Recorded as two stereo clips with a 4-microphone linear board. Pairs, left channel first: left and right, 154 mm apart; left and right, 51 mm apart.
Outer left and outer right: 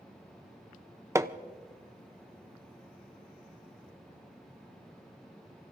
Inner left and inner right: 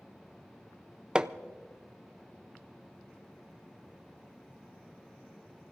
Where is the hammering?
20° right (ahead or behind), 0.5 m.